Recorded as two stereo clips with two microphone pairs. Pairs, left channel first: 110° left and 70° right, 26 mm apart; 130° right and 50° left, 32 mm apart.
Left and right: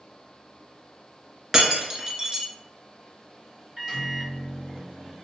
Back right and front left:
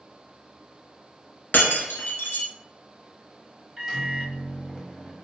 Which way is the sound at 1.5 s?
130° right.